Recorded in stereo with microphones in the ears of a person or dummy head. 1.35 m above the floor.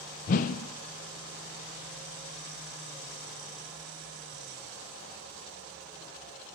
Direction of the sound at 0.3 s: 45° left (ahead or behind).